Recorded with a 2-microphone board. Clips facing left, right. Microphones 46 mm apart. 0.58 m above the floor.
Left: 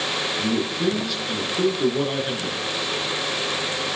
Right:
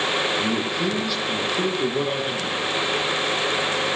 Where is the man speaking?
5° right (ahead or behind), 7 m.